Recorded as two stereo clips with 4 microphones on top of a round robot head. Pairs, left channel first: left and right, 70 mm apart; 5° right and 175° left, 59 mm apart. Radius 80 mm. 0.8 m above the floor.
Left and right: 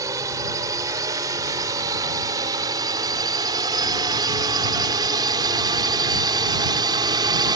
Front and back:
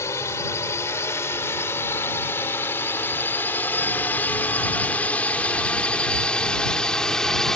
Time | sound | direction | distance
0.0 | a drone | 45° right | ?